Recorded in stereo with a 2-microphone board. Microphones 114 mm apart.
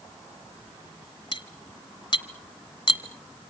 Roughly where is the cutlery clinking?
Left.